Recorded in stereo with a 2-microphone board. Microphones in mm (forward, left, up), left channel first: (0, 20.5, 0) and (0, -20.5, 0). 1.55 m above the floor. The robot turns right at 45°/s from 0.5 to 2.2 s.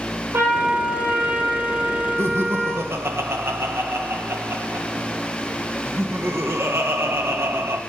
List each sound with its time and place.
0.3 s a trumpet: 95° right, 6 m; by 2.9 s 20° right, 6 m
2.2 s laughter: 85° right, 2.0 m